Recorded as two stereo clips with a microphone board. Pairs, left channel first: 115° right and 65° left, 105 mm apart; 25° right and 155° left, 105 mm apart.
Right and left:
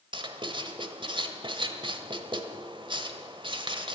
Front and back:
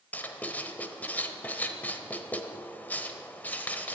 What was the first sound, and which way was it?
Writing, 45° left.